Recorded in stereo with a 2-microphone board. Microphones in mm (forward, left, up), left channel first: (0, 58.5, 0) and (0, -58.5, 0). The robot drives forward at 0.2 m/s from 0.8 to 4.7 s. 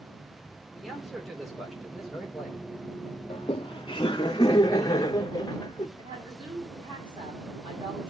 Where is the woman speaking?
40° right (ahead or behind), 7 m.